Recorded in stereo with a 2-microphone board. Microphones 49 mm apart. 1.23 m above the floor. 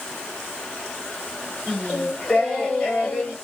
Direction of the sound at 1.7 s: 25° left (ahead or behind).